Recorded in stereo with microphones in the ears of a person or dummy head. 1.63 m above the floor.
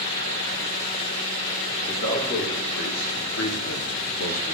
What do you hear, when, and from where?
1.9 s a man speaking: 55° left (ahead or behind), 3.5 m; by 4.5 s 35° left (ahead or behind), 1.4 m